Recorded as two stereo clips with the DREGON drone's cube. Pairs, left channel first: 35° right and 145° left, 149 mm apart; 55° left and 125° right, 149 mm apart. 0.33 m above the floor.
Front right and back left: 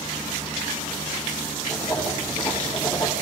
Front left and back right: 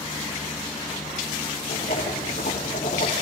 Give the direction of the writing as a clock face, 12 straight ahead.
11 o'clock.